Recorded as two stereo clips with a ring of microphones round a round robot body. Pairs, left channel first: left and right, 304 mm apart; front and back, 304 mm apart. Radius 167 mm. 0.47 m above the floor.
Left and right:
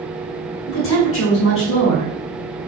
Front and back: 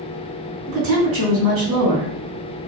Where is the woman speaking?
135° left, 2.5 m.